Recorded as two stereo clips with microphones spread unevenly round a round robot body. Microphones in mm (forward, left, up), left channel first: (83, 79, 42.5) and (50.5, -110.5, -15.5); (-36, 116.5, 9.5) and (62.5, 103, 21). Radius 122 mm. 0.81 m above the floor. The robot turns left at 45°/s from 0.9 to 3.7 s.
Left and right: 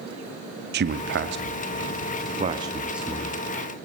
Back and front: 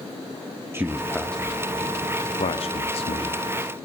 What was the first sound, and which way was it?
A man speaking, 85° right.